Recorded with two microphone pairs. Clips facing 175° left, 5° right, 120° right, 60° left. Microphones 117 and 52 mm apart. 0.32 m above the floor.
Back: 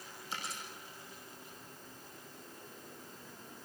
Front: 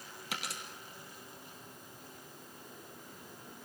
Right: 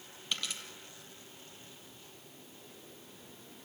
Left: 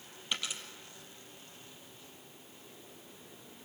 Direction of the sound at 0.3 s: 15° right.